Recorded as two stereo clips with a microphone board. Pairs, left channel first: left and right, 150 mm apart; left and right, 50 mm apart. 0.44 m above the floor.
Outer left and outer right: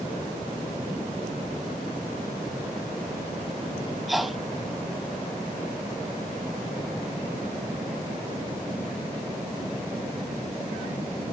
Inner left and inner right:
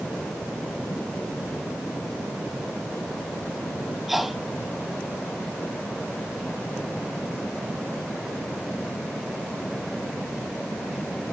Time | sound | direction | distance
4.1 | a sneeze | centre (ahead or behind) | ?